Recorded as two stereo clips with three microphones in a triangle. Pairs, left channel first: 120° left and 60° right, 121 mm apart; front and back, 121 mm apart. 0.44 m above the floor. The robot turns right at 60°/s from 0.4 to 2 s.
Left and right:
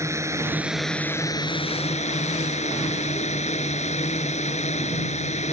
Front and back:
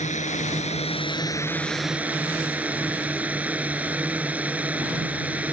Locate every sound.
0.0 s a drone: 5° left; by 5.5 s 100° left